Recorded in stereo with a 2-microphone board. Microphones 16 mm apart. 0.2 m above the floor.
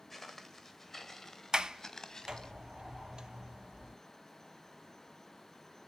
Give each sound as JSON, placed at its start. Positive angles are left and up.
{"t": 0.1, "sound": "footsteps", "side_deg": 0, "distance_m": 3.0}
{"t": 1.5, "sound": "a sliding door", "side_deg": -40, "distance_m": 0.7}